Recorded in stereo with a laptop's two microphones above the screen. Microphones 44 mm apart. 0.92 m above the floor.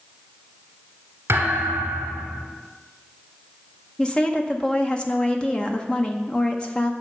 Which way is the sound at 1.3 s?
70° right (ahead or behind).